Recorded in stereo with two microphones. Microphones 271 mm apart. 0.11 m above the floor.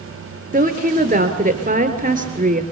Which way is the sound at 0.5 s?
30° right (ahead or behind).